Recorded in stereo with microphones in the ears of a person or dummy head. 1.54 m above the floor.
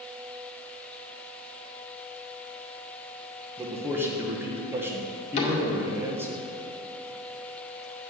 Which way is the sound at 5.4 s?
40° left (ahead or behind).